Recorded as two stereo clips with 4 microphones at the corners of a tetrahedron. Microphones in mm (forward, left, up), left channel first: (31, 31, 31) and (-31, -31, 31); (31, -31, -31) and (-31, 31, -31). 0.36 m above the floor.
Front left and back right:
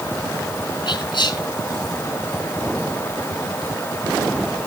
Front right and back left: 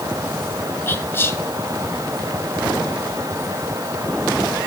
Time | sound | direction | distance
0.9 | whispering | 15° left | 4 m